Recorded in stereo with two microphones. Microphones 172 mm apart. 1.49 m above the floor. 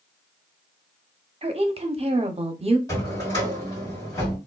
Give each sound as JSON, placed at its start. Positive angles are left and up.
{"t": 1.4, "sound": "a woman speaking", "side_deg": -35, "distance_m": 0.6}
{"t": 2.9, "sound": "a drawer", "side_deg": 20, "distance_m": 1.9}